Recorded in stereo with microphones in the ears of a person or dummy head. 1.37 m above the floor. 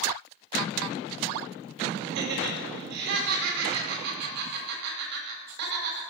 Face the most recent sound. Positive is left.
turn(degrees=-55)  # may be behind; listen again after turning